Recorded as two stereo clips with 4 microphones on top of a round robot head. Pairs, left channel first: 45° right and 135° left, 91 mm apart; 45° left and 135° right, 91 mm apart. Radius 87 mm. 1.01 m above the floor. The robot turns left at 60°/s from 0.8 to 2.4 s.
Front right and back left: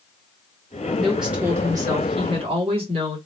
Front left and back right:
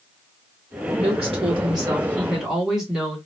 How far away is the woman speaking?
About 2 m.